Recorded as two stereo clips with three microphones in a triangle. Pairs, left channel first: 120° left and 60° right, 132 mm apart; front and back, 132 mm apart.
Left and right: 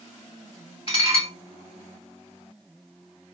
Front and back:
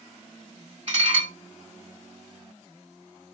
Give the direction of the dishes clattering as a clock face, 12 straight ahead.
7 o'clock.